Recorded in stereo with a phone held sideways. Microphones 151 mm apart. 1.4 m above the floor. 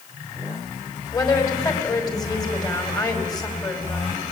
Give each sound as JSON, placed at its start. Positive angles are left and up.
{"t": 1.1, "sound": "a woman speaking", "side_deg": 25, "distance_m": 5.0}